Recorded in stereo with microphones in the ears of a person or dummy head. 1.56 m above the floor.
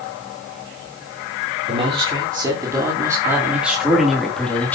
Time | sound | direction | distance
1.7 | a man speaking | 25° right (ahead or behind) | 4.5 m